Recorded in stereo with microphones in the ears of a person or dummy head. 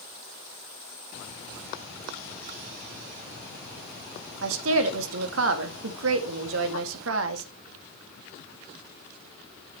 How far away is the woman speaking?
About 1.6 m.